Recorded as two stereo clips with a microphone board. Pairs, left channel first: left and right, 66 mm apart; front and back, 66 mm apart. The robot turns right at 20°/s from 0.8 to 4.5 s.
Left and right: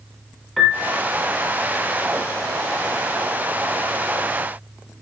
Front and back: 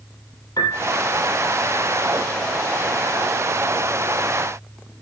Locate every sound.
0.6 s a piano: straight ahead, 3 m